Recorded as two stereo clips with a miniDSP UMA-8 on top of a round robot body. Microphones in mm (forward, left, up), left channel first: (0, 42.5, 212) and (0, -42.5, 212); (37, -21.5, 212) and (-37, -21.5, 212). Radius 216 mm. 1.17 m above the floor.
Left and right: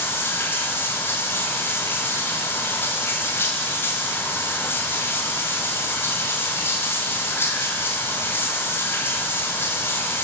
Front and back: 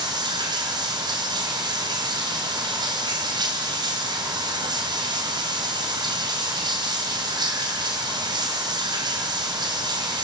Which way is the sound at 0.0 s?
155° left.